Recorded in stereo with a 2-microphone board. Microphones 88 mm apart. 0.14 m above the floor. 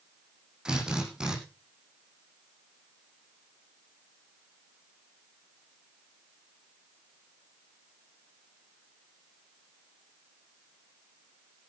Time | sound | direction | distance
0.7 | a drill | 10° right (ahead or behind) | 9 m